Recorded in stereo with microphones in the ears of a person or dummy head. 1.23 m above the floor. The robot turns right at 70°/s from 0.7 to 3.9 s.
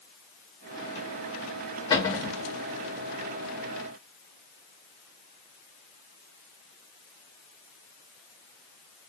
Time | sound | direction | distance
1.9 | a cupboard door | 155° left | 0.9 m